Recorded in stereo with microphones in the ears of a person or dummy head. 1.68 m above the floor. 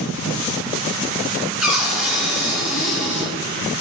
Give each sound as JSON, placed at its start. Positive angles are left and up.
{"t": 1.6, "sound": "a cupboard door", "side_deg": -5, "distance_m": 0.8}